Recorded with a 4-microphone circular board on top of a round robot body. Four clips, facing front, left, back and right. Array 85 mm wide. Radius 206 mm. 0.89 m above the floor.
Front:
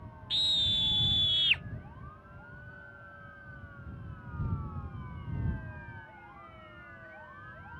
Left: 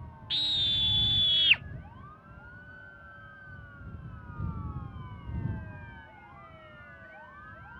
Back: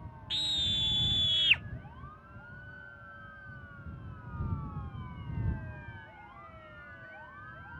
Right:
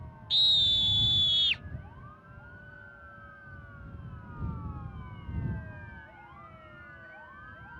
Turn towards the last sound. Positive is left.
turn(degrees=110)